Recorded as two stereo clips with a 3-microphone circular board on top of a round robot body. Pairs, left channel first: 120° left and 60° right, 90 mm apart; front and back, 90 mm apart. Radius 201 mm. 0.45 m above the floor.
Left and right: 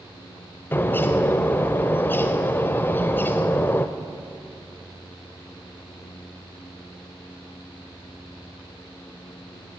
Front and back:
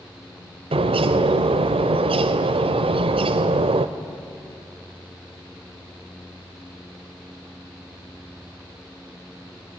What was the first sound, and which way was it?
A bird, 170° right.